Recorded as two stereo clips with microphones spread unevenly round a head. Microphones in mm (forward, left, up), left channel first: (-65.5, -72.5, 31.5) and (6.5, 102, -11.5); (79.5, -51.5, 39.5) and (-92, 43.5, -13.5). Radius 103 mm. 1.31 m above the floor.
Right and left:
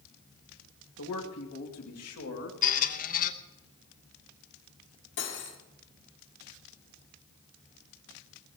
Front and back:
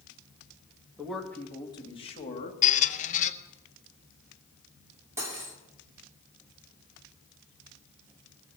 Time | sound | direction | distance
1.0 | a man speaking | 125° right | 2.5 m
2.6 | a squeak | 70° right | 0.7 m
5.2 | cutlery clinking | 130° right | 2.5 m